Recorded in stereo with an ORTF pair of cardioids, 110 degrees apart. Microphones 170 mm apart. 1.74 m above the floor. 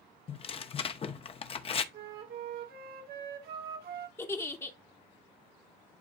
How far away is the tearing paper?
About 0.7 m.